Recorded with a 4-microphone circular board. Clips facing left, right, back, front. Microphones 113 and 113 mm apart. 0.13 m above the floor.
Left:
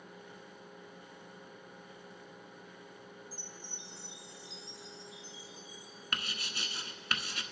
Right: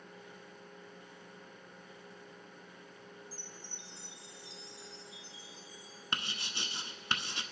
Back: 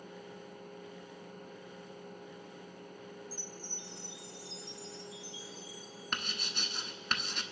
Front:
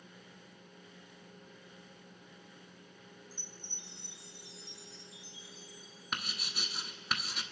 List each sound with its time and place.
3.3 s a chime: straight ahead, 1.3 m
6.1 s writing: 80° right, 0.8 m